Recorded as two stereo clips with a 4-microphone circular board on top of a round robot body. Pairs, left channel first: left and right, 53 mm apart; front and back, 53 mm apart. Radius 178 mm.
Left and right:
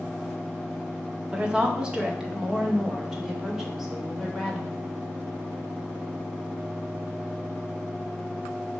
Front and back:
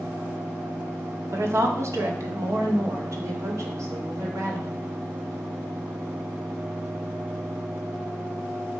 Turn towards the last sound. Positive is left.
turn(degrees=180)